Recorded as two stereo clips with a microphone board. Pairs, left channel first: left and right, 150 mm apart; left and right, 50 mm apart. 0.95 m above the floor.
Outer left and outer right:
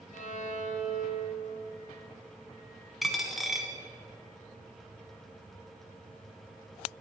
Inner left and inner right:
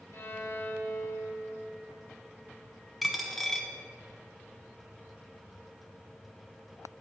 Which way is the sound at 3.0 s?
Centre (ahead or behind).